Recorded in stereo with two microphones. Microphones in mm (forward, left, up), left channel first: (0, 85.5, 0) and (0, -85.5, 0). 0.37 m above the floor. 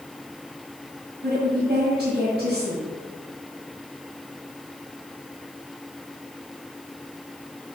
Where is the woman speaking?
65° right (ahead or behind), 1.9 m.